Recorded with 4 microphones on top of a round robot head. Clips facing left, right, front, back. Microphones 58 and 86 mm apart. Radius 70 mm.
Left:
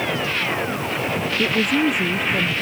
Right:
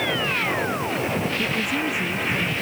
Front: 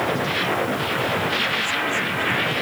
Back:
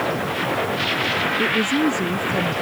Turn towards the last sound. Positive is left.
turn(degrees=140)